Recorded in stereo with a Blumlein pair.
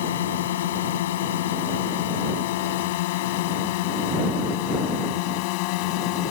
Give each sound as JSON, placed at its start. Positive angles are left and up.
{"t": 0.0, "sound": "a drone", "azimuth_deg": 60}